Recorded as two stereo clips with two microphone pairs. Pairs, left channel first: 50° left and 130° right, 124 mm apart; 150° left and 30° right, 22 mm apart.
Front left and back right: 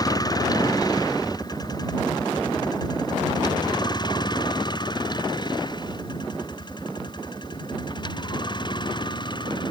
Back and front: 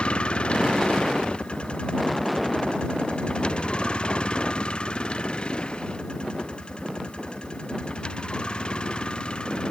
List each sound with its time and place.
0.0 s a vehicle: 110° left; by 9.7 s 105° left